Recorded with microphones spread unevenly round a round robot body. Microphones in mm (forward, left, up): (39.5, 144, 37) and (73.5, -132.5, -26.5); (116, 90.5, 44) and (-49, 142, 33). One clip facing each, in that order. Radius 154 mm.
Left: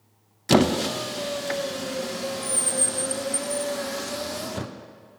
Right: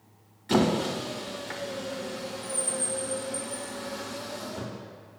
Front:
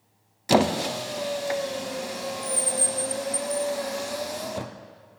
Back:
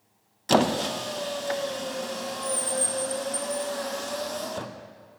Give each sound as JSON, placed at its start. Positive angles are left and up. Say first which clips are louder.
{"t": 0.5, "sound": "a squeak", "louder": "left 4 dB, front 1 dB", "azimuth_deg": 65, "distance_m": 0.5}